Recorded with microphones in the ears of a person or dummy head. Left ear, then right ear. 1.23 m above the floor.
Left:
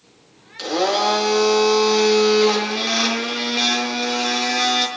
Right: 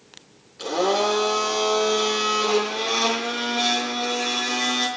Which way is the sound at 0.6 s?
60° left (ahead or behind).